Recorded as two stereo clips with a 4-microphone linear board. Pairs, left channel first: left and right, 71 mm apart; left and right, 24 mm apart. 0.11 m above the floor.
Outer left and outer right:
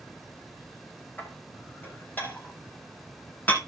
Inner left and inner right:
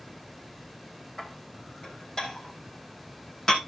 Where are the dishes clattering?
25° left (ahead or behind), 4 m.